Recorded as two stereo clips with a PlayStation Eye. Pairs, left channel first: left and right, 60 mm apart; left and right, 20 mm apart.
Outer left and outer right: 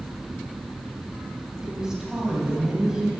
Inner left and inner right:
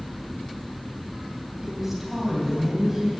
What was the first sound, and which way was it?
A woman speaking, 10° right (ahead or behind).